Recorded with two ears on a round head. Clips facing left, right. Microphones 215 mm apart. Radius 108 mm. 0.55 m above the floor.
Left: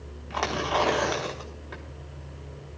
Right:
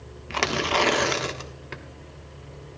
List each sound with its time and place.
0.3 s tearing paper: 35° right (ahead or behind), 1.1 m